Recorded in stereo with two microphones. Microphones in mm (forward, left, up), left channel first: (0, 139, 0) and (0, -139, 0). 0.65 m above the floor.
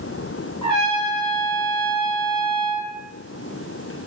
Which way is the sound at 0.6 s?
65° right (ahead or behind).